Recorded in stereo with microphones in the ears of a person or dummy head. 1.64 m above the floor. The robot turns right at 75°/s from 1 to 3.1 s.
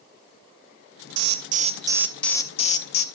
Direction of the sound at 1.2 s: 75° right.